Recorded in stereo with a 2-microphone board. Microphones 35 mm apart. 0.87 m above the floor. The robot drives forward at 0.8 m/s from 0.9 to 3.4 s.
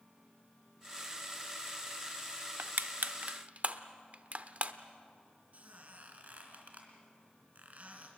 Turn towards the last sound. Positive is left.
turn(degrees=-45)  # may be behind; listen again after turning